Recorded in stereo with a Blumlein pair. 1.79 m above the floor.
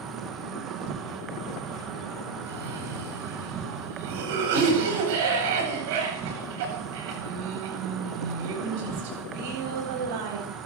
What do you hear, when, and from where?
0.0 s an insect: 25° right, 2 m
2.5 s a cough: 50° right, 9 m